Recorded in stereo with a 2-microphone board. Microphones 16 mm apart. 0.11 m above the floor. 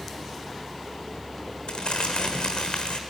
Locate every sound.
1.7 s crumpling: 75° left (ahead or behind), 1.4 m